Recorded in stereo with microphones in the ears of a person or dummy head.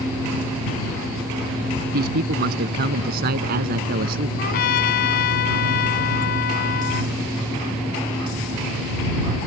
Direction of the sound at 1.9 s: 50° right (ahead or behind).